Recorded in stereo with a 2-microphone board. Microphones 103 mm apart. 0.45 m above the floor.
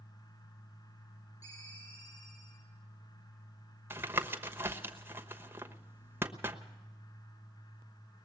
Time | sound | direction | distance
1.4 | a ringtone | 35° left (ahead or behind) | 9.5 m
3.9 | tapping | 25° right (ahead or behind) | 1.1 m